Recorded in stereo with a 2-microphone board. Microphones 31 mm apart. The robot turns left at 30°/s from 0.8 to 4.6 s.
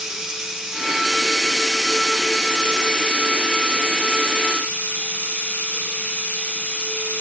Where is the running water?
160° right, 1.0 m; by 7.2 s 90° left, 1.0 m.